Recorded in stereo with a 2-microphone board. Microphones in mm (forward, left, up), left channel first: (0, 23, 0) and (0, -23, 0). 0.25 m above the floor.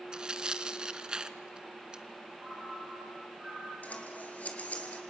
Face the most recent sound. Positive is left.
turn(degrees=30)  # may be behind; listen again after turning